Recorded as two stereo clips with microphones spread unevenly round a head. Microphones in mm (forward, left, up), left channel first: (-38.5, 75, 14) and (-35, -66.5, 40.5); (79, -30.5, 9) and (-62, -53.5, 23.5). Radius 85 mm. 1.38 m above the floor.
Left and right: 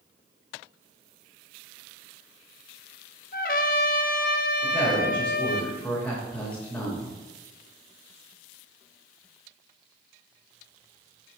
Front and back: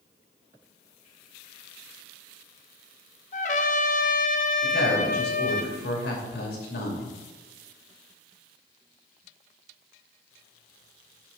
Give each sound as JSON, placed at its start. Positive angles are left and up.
{"t": 3.3, "sound": "a trumpet", "azimuth_deg": 50, "distance_m": 0.6}
{"t": 4.6, "sound": "a woman speaking", "azimuth_deg": 5, "distance_m": 2.5}